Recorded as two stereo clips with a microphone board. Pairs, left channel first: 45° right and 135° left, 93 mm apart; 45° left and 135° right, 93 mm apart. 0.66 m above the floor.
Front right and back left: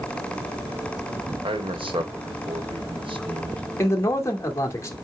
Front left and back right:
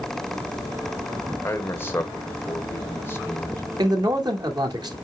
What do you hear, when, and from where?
1.4 s a man speaking: 110° left, 2 m
3.8 s a man speaking: 100° right, 2 m